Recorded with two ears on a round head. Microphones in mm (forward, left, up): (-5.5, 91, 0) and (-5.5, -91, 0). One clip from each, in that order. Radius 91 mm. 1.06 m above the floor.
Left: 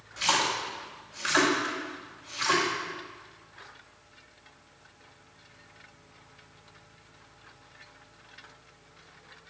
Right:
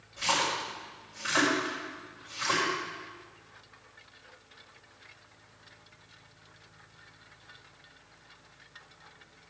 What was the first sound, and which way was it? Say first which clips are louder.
A splash: left 2 dB; 80° left.